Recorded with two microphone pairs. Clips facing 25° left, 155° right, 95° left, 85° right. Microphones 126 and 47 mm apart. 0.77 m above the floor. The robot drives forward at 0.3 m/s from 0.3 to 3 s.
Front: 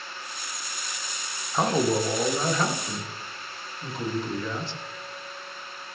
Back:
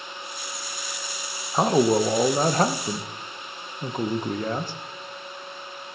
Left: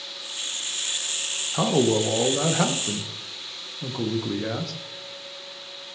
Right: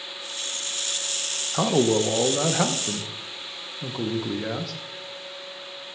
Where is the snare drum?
No snare drum in this recording.